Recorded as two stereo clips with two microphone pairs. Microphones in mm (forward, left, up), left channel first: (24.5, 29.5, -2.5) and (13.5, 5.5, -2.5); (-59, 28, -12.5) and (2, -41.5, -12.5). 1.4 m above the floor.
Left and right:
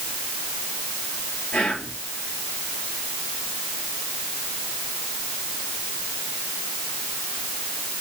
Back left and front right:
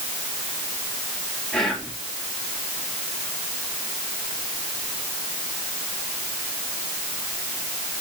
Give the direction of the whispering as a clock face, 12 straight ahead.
10 o'clock.